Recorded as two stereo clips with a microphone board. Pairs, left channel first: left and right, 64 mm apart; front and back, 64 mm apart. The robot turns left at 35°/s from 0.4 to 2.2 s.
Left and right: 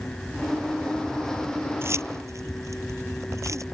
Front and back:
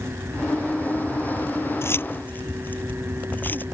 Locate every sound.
1.8 s keys jangling: 45° right; by 3.6 s 60° right